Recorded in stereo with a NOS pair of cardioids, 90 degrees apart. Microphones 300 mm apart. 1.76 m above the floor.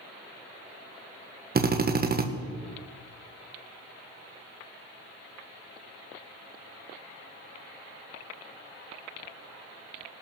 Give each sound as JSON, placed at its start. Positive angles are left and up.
{"t": 1.6, "sound": "a drill", "azimuth_deg": -30, "distance_m": 1.5}